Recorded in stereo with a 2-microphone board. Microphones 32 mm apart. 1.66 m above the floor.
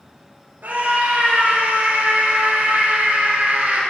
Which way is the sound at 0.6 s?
70° right (ahead or behind).